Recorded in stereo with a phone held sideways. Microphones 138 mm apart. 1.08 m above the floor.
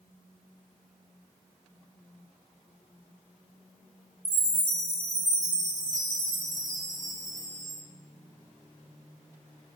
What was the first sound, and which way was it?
A chime, 70° right (ahead or behind).